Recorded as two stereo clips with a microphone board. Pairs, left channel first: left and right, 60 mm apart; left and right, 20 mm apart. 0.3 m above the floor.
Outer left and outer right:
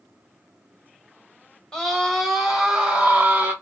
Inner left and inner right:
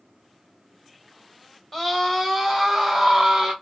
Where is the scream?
10° left (ahead or behind), 1.6 m; by 3.5 s 30° right (ahead or behind), 1.5 m.